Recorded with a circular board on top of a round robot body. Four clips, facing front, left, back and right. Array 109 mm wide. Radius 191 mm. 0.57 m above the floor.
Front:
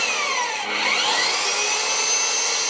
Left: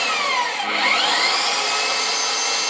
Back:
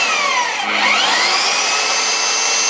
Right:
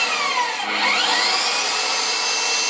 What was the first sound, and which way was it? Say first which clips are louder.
An engine running: even, back 7 dB; 175° left.